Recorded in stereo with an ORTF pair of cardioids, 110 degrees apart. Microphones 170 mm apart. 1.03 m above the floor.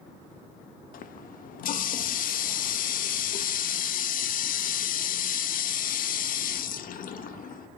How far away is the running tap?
About 0.8 m.